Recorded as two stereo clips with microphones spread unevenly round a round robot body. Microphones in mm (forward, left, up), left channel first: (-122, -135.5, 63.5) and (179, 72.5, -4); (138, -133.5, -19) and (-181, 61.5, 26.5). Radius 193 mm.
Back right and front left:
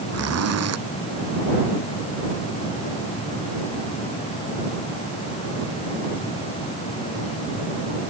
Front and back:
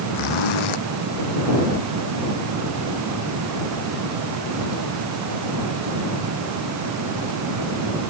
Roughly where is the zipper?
Ahead.